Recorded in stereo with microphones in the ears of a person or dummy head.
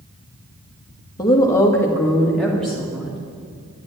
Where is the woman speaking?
20° left (ahead or behind), 1.7 m; by 3.2 s centre (ahead or behind), 3 m.